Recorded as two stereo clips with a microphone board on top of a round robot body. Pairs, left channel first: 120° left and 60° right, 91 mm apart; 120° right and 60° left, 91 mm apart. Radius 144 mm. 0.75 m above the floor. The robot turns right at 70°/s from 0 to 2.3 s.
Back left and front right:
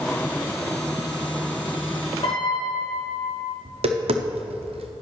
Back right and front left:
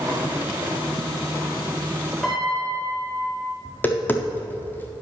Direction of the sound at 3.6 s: 50° right.